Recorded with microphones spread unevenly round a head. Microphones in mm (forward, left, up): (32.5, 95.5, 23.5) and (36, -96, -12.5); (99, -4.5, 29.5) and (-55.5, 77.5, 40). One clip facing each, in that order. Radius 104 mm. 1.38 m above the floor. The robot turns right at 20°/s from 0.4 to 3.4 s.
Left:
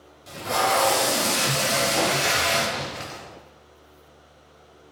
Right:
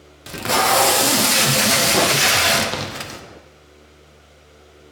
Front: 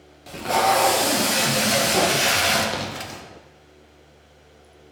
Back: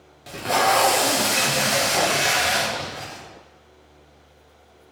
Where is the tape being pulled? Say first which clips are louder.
Right 4 dB, front 1 dB; 120° right, 0.7 m; by 3.2 s 65° right, 0.7 m.